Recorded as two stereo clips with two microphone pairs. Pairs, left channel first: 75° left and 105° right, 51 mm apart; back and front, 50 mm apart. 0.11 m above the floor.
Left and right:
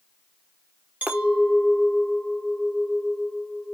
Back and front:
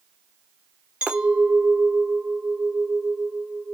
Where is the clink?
60° right, 1.1 m.